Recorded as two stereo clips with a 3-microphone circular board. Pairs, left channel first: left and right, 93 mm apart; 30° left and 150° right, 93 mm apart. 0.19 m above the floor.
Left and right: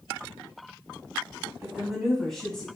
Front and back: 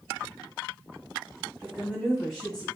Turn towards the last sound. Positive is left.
turn(degrees=20)